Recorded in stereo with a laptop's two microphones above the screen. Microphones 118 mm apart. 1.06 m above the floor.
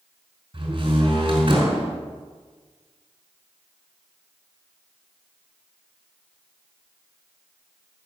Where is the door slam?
45° right (ahead or behind), 5 m.